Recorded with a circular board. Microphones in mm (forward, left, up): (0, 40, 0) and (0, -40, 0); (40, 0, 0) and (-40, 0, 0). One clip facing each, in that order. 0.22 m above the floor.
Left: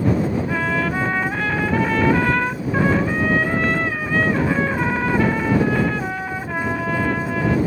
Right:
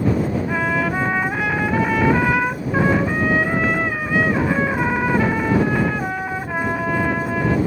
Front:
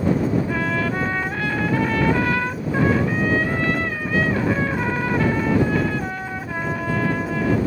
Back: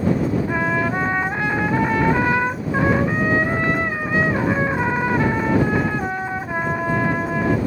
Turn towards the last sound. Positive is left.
turn(degrees=-160)